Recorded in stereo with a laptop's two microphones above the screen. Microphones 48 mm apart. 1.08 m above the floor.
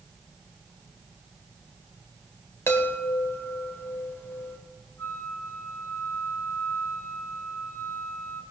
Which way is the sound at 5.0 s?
80° left.